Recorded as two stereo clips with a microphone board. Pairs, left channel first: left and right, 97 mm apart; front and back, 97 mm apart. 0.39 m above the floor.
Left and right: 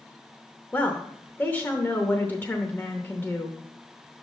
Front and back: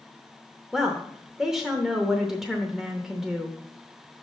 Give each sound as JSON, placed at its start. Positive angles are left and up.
{"t": 0.7, "sound": "a woman speaking", "azimuth_deg": 105, "distance_m": 0.8}